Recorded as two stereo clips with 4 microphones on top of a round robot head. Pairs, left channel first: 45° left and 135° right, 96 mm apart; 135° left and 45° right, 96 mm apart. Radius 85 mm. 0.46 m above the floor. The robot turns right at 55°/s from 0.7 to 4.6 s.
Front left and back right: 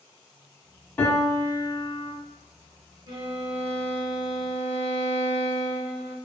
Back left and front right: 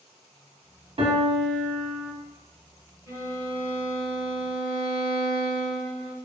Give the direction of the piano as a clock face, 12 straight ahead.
1 o'clock.